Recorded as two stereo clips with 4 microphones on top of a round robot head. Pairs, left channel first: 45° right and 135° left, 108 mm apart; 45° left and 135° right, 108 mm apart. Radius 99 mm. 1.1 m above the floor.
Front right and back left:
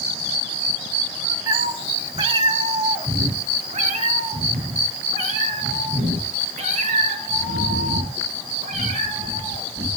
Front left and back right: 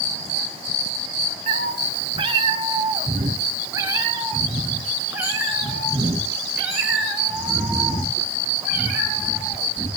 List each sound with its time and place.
1.5 s a cat meowing: 160° right, 1.7 m; by 9.9 s 140° left, 7 m